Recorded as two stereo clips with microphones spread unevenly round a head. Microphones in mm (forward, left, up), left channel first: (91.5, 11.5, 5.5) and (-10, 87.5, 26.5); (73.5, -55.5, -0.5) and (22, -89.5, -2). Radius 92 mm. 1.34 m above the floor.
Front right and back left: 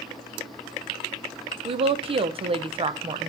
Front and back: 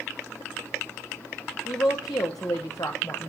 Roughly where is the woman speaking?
Left.